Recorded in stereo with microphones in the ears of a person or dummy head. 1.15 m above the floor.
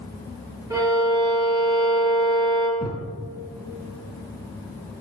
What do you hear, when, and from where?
0.7 s a violin: 15° right (ahead or behind), 6 m
2.8 s a thud: 5° left (ahead or behind), 6 m